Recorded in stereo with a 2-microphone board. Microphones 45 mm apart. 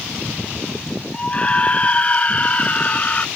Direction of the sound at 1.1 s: 25° left (ahead or behind).